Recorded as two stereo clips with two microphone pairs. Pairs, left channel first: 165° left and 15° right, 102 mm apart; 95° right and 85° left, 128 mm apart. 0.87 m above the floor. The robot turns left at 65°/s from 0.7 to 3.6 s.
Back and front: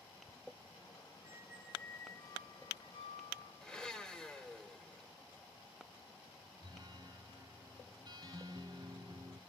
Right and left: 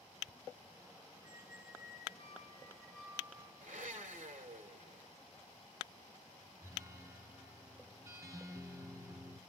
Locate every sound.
1.2 s a squeak: 70° right, 4 m; by 3.5 s 145° left, 4 m
3.6 s a blender: 85° left, 2 m
6.6 s a guitar: 25° left, 1.3 m